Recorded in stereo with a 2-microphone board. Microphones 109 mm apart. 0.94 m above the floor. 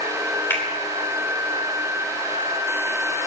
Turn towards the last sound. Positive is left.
turn(degrees=20)  # may be behind; listen again after turning